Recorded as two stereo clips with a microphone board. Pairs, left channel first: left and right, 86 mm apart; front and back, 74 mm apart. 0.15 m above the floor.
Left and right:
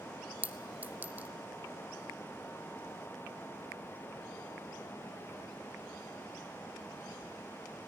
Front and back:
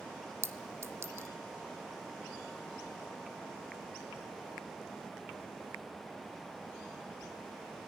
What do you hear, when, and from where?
0.4 s a clink: 150° right, 1.0 m